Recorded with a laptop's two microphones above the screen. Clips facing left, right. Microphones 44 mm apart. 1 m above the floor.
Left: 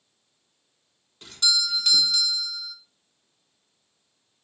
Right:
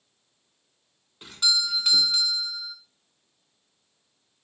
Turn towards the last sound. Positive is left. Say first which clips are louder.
# even
turn(degrees=-10)  # may be behind; listen again after turning